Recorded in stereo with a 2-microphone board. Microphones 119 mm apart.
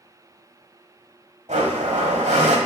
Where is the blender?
80° right, 1.5 m.